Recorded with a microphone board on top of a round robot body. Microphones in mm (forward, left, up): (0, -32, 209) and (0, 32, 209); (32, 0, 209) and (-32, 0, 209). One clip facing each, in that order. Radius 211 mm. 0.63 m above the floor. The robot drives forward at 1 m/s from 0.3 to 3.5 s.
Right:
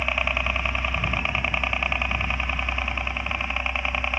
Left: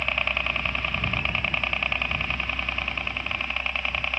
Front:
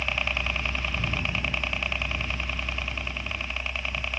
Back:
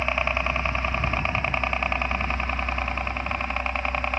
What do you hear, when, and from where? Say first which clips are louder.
0.0 s a helicopter: right 2 dB, back 4 dB; 160° right